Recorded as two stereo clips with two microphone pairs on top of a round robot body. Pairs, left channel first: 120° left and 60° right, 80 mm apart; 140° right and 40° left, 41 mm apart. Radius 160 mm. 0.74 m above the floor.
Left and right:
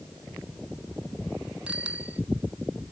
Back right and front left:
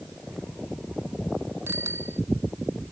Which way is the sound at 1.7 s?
20° left.